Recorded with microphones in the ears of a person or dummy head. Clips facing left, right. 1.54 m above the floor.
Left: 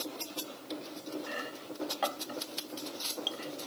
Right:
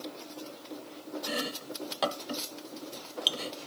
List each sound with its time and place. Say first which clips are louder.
1.3 s chopping: right 5 dB; 50° right (ahead or behind)